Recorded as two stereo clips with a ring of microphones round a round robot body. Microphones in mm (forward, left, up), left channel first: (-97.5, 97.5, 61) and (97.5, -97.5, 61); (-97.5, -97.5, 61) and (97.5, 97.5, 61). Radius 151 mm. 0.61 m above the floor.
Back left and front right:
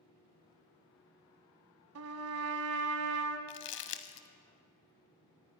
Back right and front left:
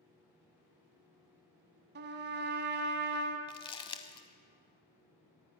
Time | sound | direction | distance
1.9 | a trumpet | 10° right | 1.0 m
3.5 | crumpling | 160° left | 0.5 m